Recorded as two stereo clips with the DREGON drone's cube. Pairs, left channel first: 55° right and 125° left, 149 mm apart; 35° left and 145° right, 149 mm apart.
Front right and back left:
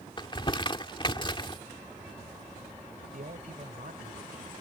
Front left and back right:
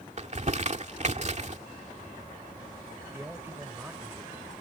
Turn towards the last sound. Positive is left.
turn(degrees=140)